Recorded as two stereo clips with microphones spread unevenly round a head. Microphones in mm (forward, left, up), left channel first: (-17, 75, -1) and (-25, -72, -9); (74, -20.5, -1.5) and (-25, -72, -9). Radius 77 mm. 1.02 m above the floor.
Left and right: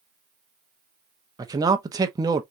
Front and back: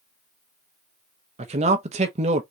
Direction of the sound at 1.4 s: 155° right.